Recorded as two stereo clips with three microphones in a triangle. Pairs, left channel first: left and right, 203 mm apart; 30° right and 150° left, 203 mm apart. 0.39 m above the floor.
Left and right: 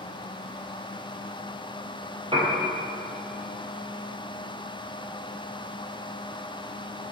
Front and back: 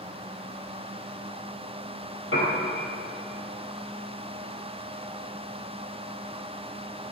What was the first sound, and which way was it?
A piano, 25° right.